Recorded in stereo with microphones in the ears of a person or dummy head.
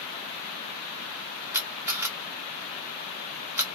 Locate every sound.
1.5 s a camera shutter: 15° right (ahead or behind), 0.9 m